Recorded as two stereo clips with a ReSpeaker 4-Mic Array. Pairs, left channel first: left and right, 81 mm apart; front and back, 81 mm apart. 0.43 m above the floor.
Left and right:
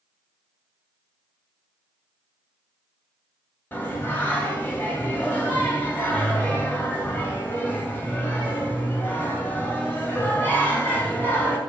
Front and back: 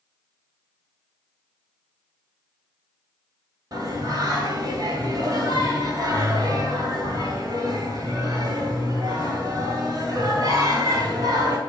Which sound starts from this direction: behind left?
Singing, at 3.7 s.